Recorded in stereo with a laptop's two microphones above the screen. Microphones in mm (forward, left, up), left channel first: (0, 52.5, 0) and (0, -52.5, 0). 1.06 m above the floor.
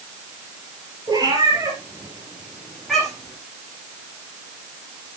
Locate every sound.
1.1 s a cat meowing: 40° right (ahead or behind), 3 m; by 3.4 s 10° left (ahead or behind), 3.5 m